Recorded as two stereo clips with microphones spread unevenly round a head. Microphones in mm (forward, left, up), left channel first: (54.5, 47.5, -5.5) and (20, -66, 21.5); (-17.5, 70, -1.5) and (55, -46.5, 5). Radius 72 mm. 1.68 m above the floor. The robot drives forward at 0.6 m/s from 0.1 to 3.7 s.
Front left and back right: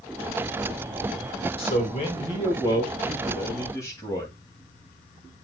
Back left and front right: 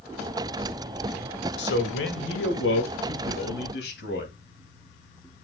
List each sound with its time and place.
1.6 s a man speaking: 125° left, 2.5 m; by 4.3 s 145° left, 3 m